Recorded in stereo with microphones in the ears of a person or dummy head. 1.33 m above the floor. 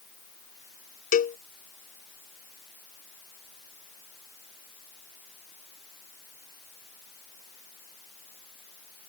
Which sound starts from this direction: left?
A cowbell, at 1.1 s.